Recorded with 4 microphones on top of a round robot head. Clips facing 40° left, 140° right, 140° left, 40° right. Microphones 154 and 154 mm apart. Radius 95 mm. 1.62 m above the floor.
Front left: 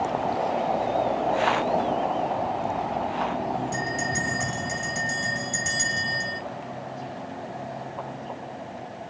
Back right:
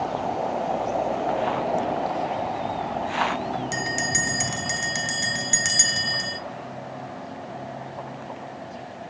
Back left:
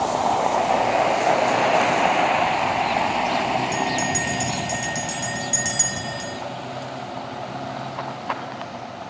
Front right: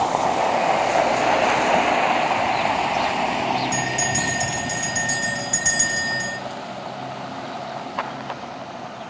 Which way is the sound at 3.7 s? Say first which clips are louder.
Even, back left 1 dB; 135° right.